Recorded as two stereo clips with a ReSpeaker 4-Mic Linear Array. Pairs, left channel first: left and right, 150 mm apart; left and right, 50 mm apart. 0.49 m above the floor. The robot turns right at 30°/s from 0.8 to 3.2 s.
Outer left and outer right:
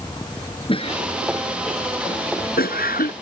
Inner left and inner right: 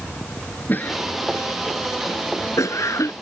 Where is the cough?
35° left (ahead or behind); by 3.1 s 70° left (ahead or behind).